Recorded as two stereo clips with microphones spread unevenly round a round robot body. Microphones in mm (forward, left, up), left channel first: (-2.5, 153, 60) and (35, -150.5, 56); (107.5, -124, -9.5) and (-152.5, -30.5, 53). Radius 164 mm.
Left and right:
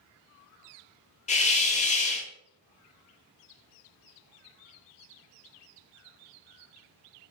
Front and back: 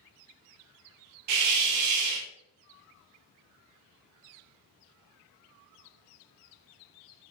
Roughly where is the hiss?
Behind.